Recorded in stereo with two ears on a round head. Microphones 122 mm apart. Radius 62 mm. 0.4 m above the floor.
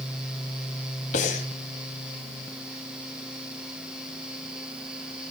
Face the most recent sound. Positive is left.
turn(degrees=60)  # may be behind; listen again after turning